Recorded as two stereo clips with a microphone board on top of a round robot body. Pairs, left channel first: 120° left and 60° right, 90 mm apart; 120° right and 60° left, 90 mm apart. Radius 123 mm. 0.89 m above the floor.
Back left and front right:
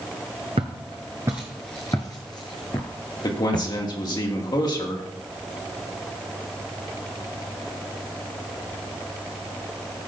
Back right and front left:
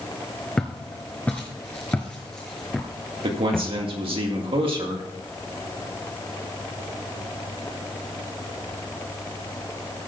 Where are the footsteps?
40° right, 1.0 m; by 3.7 s 155° left, 1.6 m.